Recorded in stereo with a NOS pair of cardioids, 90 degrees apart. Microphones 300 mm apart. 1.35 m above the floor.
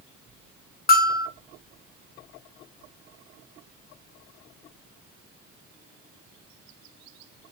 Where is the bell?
30° left, 0.5 m.